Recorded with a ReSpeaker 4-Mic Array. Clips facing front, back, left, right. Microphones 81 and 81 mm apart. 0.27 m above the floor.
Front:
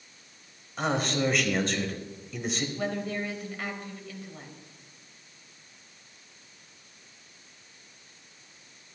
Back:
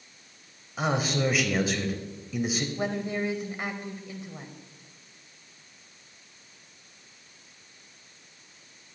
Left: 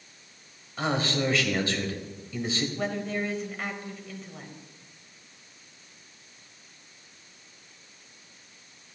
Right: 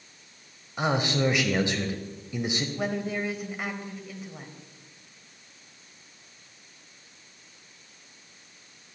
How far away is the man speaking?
About 0.9 m.